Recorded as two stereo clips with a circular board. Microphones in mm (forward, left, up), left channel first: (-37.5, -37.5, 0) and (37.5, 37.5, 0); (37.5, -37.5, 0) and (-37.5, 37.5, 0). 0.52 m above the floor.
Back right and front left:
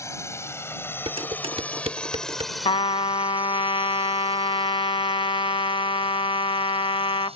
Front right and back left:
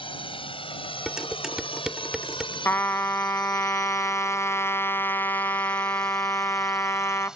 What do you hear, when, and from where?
0.0 s a drone: 75° right; by 7.4 s 50° left
1.1 s dishes clattering: 50° left
2.6 s a trumpet: 110° right